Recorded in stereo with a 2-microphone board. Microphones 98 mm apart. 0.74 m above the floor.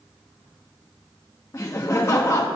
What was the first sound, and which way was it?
Laughter, 30° left (ahead or behind).